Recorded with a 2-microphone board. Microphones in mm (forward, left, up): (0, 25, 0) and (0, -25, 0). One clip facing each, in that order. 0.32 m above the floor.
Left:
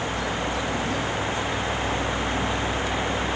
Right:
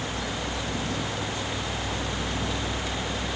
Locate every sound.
Only background noise.